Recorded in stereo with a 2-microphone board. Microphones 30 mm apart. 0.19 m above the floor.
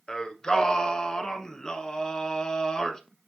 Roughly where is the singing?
Left.